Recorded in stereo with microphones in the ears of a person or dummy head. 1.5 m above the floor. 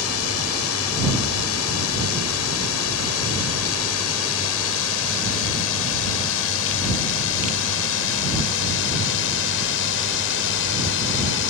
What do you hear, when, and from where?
0.0 s a drone: 80° left; by 11.5 s 70° left (ahead or behind)